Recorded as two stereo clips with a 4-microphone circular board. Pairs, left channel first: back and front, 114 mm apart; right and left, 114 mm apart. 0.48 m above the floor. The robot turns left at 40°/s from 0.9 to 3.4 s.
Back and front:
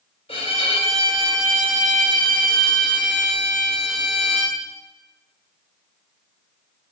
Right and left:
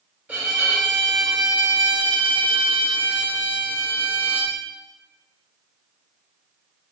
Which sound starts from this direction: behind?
A violin, at 0.3 s.